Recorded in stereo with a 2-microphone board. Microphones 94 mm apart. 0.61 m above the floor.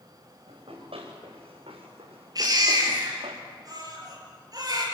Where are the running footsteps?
85° right, 7.5 m; by 3.4 s 80° right, 5.5 m.